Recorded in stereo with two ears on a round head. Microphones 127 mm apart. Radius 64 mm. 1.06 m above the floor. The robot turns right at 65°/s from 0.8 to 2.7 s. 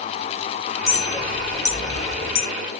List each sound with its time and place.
0.9 s a clink: 5° right (ahead or behind), 2.5 m; by 2.5 s 75° left (ahead or behind), 2.5 m